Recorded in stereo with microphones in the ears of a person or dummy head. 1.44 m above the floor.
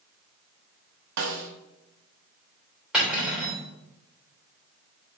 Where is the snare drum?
65° right (ahead or behind), 1.0 m.